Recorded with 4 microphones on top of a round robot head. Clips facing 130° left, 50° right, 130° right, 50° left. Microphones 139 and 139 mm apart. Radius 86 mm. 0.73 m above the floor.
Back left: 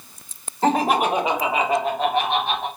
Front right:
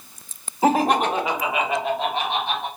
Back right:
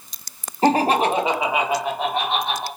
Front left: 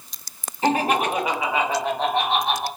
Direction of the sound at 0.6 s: 125° right.